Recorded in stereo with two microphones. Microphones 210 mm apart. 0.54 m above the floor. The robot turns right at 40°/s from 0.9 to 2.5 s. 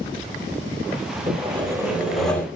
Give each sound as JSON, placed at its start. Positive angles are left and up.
{"t": 1.3, "sound": "sawing", "azimuth_deg": -35, "distance_m": 0.8}